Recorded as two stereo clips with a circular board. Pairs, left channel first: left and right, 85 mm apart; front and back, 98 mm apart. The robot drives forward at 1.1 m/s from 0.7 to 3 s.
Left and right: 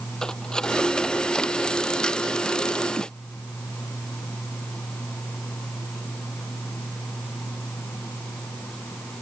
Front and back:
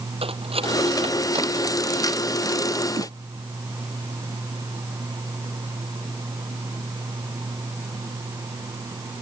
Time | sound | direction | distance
0.2 | cutlery clinking | 170° left | ?
2.9 | a whoosh | 160° right | ?